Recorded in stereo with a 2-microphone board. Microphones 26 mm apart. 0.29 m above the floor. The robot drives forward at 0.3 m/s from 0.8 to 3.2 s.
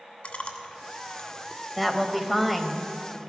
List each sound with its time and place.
0.2 s chewing: 55° left (ahead or behind), 1.5 m; by 1.6 s 60° left (ahead or behind), 1.4 m
1.8 s a woman speaking: 5° left (ahead or behind), 1.1 m